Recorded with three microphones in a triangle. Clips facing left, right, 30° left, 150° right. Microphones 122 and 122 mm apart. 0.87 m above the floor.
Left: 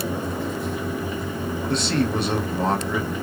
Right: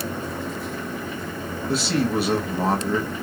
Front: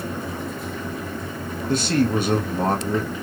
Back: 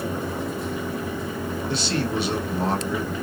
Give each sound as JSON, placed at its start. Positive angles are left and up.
{"t": 1.7, "sound": "a man speaking", "azimuth_deg": -5, "distance_m": 1.1}